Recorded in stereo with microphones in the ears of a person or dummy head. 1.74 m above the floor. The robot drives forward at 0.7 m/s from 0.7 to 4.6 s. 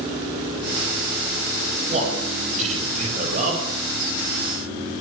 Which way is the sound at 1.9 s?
35° right (ahead or behind).